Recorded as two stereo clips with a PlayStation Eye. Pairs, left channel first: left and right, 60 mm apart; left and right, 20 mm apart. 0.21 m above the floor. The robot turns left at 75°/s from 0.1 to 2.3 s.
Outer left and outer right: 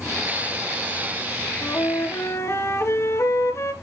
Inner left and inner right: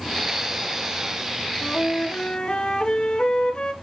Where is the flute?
115° left, 1.7 m; by 3.7 s 60° left, 1.7 m.